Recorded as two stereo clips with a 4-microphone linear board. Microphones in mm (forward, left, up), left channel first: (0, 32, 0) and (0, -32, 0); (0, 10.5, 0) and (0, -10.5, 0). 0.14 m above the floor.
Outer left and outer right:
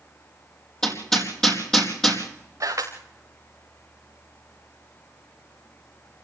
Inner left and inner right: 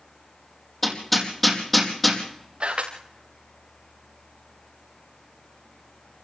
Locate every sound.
0.8 s hammering: 10° left (ahead or behind), 4.5 m
2.6 s a camera shutter: 55° right (ahead or behind), 5 m